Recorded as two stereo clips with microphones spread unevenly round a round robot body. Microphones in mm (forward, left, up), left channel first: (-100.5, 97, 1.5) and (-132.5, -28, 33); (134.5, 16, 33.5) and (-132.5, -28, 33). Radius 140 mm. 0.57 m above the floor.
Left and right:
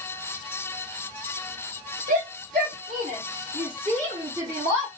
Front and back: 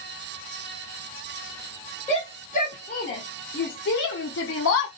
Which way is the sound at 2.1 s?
55° right.